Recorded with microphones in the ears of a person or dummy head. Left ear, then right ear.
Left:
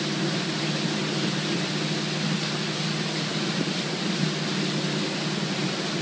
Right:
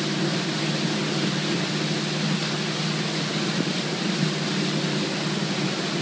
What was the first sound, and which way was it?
Only background noise.